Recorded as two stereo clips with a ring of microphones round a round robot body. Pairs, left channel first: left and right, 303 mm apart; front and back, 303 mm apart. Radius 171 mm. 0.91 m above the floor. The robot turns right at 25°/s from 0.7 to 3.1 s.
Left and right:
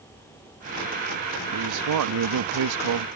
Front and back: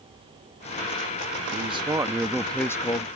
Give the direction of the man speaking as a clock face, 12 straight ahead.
4 o'clock.